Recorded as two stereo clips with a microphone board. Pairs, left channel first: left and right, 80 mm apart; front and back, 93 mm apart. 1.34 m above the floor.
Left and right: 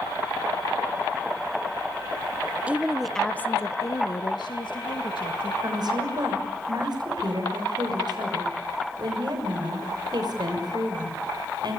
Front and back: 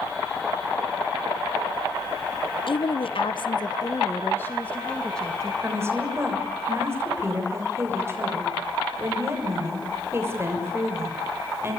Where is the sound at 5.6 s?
120° right, 6.5 m.